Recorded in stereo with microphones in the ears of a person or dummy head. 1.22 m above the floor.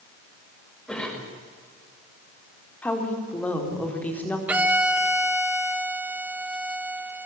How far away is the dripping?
No dripping in this recording.